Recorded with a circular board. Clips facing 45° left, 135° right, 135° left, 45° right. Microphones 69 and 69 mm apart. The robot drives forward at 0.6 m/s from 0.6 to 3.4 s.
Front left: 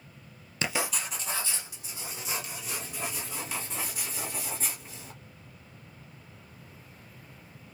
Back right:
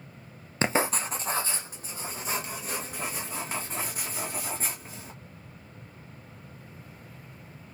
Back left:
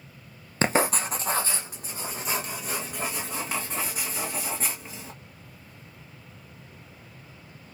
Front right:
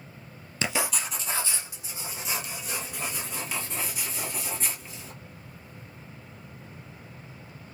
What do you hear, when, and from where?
0.6 s writing: 175° left, 0.5 m; by 5.1 s straight behind, 2 m